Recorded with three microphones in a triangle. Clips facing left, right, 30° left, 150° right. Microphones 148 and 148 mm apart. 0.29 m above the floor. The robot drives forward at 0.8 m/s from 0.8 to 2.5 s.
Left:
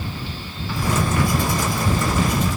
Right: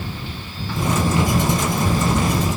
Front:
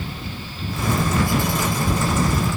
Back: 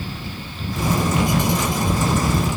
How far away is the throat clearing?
No throat clearing in this recording.